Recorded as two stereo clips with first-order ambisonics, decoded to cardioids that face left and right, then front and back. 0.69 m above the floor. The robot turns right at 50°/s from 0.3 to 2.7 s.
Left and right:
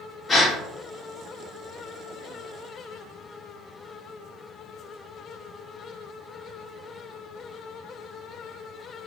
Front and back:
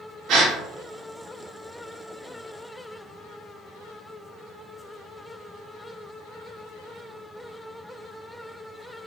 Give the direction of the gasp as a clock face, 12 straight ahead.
7 o'clock.